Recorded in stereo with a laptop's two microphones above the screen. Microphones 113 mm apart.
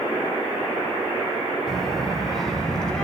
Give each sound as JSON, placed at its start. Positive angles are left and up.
{"t": 1.7, "sound": "a child speaking", "side_deg": 0, "distance_m": 4.5}